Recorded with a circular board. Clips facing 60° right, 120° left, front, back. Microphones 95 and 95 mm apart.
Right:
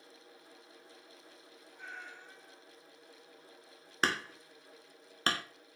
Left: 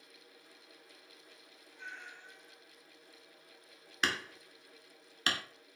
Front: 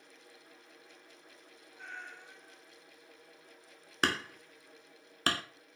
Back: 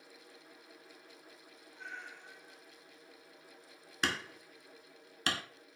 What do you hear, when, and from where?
1.8 s a cat meowing: 25° right, 1.6 m
4.0 s hammering: 20° right, 0.5 m